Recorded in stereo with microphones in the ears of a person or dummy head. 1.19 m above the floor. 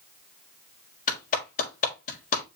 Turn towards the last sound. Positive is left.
turn(degrees=45)  # may be behind; listen again after turning